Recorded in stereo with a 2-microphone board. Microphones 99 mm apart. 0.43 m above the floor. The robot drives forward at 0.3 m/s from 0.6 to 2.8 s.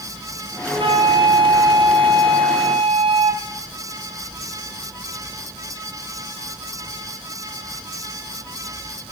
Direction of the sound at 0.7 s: 60° right (ahead or behind).